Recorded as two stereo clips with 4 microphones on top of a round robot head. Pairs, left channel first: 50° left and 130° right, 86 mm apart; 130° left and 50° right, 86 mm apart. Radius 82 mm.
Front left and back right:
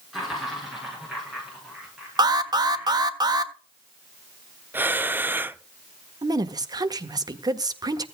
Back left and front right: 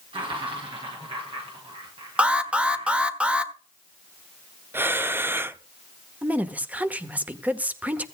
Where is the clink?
I don't hear a clink.